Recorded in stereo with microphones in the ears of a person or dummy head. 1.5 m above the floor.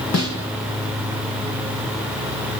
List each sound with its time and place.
0.1 s a snare drum: 65° left (ahead or behind), 2.0 m